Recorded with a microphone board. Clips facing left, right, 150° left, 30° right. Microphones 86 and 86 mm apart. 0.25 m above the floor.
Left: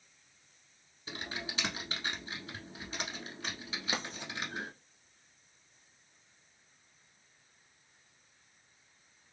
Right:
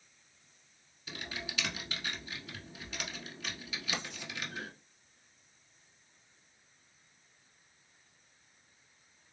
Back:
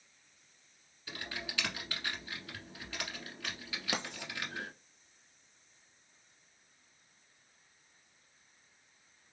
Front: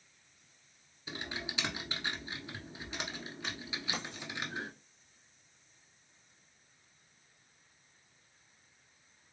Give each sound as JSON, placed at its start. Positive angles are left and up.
{"t": 1.1, "sound": "typing on a keyboard", "azimuth_deg": 35, "distance_m": 1.1}
{"t": 3.9, "sound": "writing", "azimuth_deg": 140, "distance_m": 0.9}